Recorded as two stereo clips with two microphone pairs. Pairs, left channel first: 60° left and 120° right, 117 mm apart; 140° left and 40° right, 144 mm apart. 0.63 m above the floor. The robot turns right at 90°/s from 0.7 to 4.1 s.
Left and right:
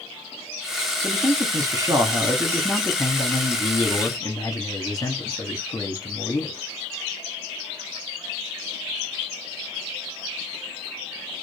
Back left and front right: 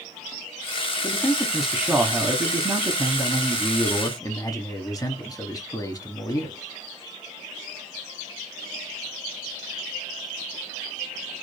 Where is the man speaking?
175° left, 0.9 m; by 6.6 s 95° left, 0.9 m.